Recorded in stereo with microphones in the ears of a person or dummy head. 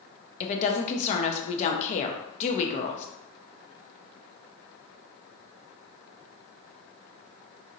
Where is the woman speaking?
35° left (ahead or behind), 0.7 m.